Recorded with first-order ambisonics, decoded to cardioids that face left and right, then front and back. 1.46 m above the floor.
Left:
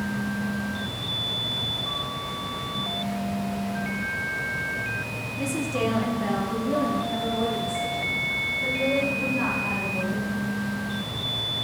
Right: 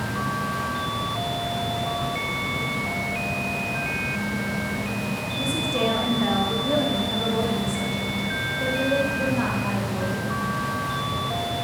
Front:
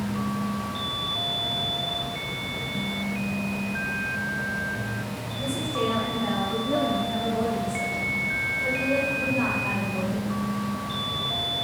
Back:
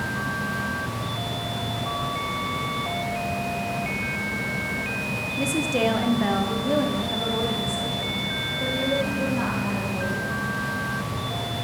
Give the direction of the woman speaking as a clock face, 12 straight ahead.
6 o'clock.